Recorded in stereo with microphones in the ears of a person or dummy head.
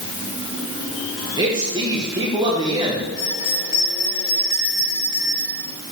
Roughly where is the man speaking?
Right.